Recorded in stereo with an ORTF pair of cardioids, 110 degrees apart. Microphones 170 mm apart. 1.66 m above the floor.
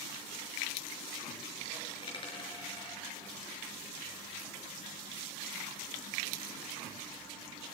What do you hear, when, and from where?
1.9 s a dropped coin: 30° left, 6 m